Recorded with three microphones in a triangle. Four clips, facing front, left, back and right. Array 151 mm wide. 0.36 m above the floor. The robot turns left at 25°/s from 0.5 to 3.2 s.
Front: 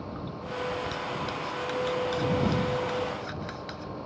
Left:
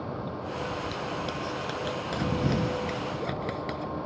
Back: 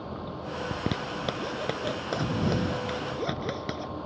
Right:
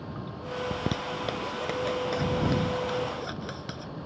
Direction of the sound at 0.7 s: 140° right.